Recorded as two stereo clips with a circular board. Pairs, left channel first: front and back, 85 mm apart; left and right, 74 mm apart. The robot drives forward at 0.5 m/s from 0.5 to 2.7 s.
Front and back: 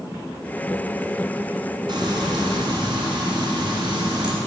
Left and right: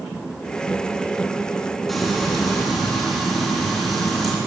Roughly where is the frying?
Behind.